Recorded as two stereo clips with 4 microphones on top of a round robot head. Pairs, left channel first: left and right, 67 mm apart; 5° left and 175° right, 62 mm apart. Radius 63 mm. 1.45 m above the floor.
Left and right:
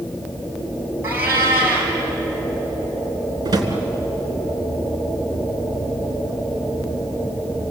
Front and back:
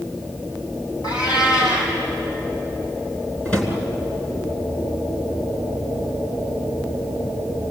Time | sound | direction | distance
1.0 | a cat meowing | 30° right | 6.5 m
3.5 | a drawer | 65° right | 3.5 m